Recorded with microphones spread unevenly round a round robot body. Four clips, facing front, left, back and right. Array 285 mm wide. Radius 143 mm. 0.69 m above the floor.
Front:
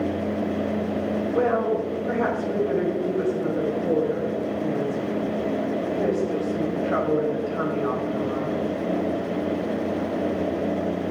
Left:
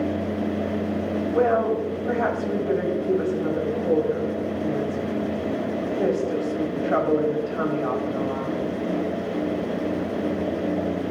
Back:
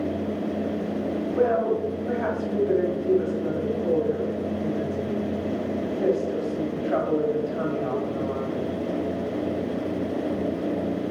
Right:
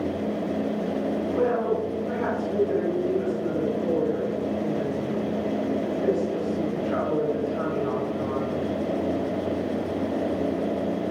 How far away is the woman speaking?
About 4.5 m.